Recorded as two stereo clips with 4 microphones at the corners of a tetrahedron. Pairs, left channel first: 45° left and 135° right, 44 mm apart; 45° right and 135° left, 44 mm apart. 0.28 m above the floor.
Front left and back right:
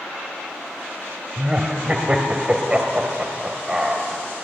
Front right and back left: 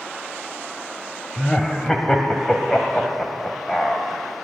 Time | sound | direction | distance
1.4 | laughter | 105° right | 1.3 m